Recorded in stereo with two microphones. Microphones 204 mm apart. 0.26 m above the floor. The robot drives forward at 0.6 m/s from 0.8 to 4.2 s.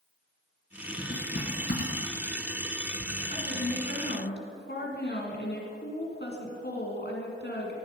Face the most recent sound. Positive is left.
turn(degrees=60)  # may be behind; listen again after turning